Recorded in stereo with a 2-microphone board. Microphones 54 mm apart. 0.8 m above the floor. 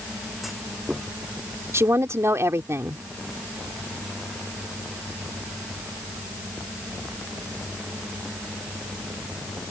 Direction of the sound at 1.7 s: 55° right (ahead or behind).